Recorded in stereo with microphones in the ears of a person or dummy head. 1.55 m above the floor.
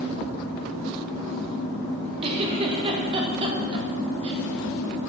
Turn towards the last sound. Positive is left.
turn(degrees=-30)  # may be behind; listen again after turning